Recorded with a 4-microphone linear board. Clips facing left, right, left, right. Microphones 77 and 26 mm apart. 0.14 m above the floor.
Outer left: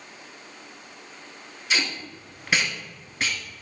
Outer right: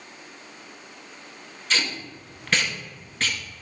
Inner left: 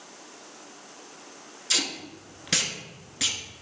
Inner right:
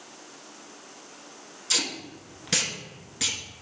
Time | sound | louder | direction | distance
1.7 | tape being pulled | even, even | 10° left (ahead or behind) | 0.8 m